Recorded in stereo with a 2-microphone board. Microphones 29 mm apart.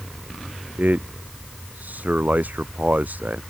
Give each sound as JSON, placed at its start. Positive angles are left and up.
{"t": 0.8, "sound": "a man speaking", "side_deg": -80}